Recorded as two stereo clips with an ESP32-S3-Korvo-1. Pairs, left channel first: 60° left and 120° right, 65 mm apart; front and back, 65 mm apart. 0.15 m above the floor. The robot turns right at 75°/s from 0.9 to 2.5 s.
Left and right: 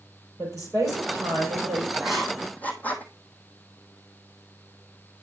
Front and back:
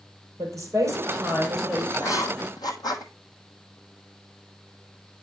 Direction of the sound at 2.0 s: 45° right.